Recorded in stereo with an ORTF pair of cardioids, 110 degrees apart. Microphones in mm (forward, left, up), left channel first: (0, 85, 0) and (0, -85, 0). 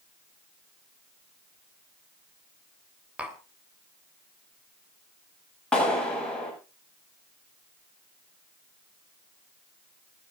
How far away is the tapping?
About 3.5 m.